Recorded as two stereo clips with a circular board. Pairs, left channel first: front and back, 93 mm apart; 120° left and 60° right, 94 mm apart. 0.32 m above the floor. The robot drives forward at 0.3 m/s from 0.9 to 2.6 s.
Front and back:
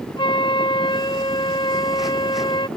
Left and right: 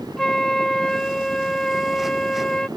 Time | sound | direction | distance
0.2 | a flute | 35° left | ?